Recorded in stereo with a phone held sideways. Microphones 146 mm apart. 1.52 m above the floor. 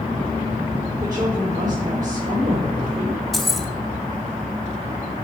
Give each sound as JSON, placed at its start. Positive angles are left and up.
{"t": 1.0, "sound": "a woman speaking", "side_deg": -25, "distance_m": 5.0}
{"t": 3.3, "sound": "keys jangling", "side_deg": 0, "distance_m": 1.0}